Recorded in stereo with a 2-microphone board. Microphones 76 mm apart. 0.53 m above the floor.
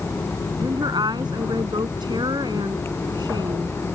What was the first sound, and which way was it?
A woman speaking, 75° right (ahead or behind).